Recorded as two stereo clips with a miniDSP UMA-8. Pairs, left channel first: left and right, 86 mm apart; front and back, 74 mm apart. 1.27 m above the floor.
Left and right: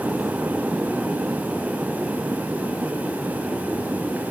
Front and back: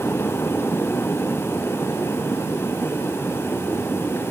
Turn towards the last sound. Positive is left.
No sound to turn to.